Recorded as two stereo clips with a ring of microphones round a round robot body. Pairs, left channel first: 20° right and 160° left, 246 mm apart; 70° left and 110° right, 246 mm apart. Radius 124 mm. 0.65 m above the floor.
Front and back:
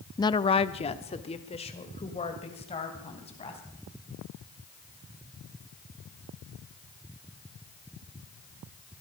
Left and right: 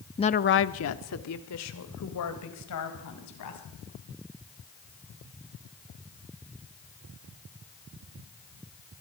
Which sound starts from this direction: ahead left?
A woman speaking, at 0.2 s.